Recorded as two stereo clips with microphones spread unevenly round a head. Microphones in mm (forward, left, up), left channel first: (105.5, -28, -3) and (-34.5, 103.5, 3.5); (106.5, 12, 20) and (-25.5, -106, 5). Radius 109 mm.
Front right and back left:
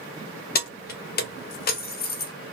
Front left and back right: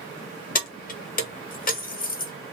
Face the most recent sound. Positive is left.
turn(degrees=0)